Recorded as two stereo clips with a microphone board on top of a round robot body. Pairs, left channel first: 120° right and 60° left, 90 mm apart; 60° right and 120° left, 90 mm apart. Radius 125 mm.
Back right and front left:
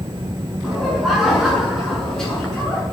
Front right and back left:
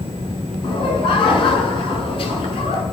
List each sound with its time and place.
0.6 s laughter: 25° right, 7 m; by 2.8 s 40° right, 8 m